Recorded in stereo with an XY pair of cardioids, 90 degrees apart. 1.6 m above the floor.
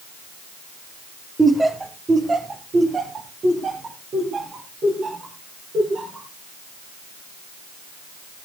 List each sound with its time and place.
1.4 s laughter: 15° right, 1.1 m; by 6.3 s 55° right, 5 m